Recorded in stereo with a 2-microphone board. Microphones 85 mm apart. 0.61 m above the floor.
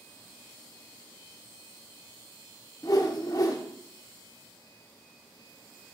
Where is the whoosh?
45° left (ahead or behind), 0.7 m.